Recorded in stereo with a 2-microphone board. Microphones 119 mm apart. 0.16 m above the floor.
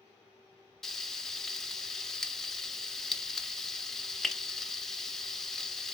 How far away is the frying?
About 0.5 m.